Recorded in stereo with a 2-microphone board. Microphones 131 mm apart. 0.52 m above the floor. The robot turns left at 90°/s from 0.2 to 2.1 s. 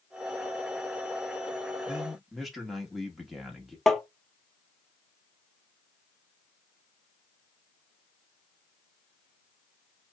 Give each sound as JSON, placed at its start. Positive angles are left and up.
{"t": 1.9, "sound": "a man speaking", "side_deg": -10, "distance_m": 0.9}
{"t": 3.9, "sound": "tapping", "side_deg": 5, "distance_m": 0.5}